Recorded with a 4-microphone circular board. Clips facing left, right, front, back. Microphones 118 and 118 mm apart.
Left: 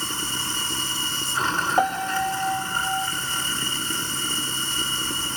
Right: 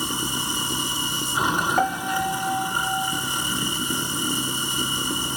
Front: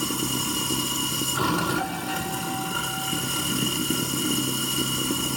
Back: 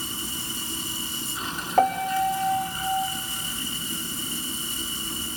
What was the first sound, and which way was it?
Running water, 15° right.